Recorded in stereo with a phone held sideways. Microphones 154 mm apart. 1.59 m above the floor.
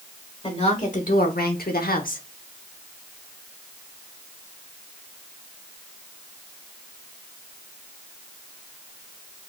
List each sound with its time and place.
0.4 s a woman speaking: 40° left (ahead or behind), 1.3 m; by 2.3 s 55° left (ahead or behind), 1.1 m